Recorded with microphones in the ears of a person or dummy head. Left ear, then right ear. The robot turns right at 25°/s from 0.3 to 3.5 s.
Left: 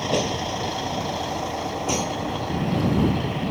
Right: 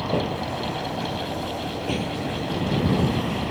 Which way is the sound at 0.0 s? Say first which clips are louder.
Left 2 dB; 90° left.